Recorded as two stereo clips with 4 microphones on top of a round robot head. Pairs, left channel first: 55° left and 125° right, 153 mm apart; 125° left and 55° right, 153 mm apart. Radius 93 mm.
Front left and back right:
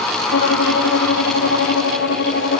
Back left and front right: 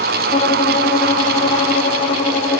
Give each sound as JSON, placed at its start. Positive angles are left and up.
{"t": 0.3, "sound": "a violin", "azimuth_deg": 75, "distance_m": 2.5}